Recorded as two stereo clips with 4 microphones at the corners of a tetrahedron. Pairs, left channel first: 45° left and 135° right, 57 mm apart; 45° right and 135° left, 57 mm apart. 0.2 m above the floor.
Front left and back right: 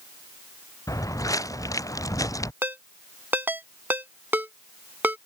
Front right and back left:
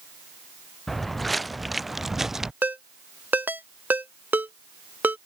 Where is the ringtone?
Straight behind.